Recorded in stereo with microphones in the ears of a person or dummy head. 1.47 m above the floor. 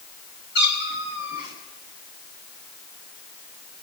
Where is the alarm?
I don't hear an alarm.